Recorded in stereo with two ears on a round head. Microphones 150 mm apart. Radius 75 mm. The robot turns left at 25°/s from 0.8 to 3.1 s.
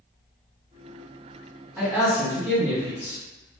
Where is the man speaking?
Centre (ahead or behind), 1.4 m; by 3.2 s 15° right (ahead or behind), 1.4 m.